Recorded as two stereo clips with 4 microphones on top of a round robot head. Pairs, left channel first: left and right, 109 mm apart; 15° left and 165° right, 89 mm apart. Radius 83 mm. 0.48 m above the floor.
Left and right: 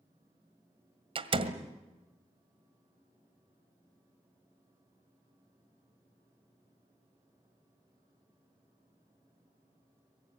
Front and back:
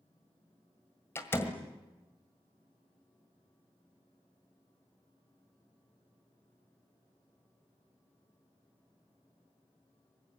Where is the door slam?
55° right, 1.7 m.